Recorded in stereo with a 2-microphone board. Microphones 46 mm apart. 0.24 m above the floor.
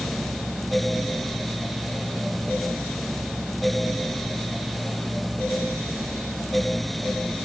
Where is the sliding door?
I don't hear a sliding door.